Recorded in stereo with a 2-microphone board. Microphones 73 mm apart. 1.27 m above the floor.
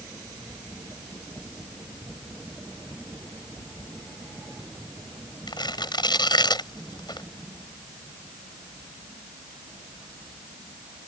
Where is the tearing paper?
80° left.